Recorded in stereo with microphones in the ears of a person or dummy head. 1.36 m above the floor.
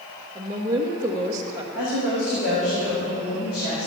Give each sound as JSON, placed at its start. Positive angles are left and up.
{"t": 0.3, "sound": "a woman speaking", "side_deg": -15, "distance_m": 1.4}
{"t": 1.7, "sound": "a woman speaking", "side_deg": 80, "distance_m": 4.5}